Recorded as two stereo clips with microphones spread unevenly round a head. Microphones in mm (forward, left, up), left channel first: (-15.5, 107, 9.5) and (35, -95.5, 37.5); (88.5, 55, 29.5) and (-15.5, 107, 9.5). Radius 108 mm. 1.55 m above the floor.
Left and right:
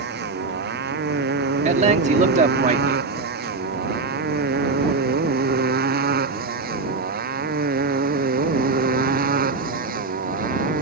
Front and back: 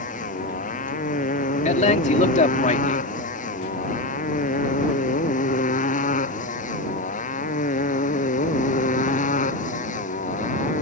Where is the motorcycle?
35° right; by 10.8 s 25° right.